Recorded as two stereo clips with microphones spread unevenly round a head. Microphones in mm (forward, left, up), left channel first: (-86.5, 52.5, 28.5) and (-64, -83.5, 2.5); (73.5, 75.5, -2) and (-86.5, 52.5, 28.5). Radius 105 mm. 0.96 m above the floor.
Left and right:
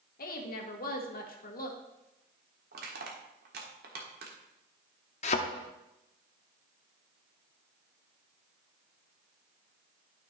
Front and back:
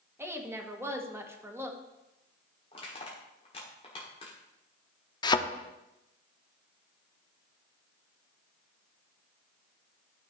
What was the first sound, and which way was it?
A woman speaking, 110° left.